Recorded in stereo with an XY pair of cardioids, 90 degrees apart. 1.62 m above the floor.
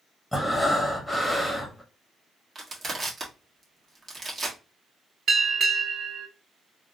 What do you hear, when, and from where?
0.3 s breathing: straight ahead, 1.0 m
2.5 s crushing: 40° right, 1.3 m
5.3 s a bell: 60° right, 1.1 m